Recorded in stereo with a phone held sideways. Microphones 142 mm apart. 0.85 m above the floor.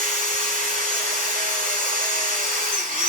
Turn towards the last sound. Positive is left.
turn(degrees=-85)